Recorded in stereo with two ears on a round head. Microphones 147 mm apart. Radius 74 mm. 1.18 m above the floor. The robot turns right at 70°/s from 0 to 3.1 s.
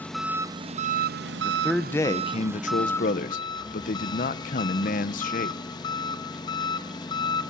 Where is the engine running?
170° left, 0.8 m; by 7.5 s 25° left, 0.8 m.